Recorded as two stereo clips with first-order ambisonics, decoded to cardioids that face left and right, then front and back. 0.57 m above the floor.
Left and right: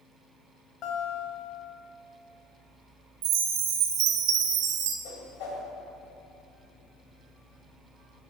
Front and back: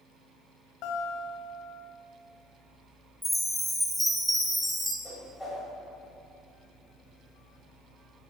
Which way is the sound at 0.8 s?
35° left.